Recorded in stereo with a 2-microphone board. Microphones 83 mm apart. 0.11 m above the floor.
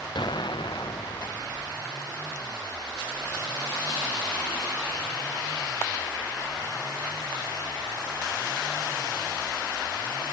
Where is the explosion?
65° left (ahead or behind).